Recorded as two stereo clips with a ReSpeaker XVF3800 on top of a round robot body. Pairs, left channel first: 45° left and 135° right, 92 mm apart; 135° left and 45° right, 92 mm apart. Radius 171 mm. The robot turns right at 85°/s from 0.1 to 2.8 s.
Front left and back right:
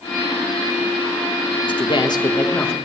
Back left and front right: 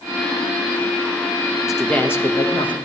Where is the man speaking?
35° left, 1.5 m; by 2.8 s 130° left, 1.5 m.